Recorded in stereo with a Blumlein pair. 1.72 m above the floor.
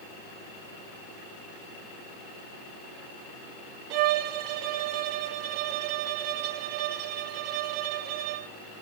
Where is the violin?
45° right, 0.6 m.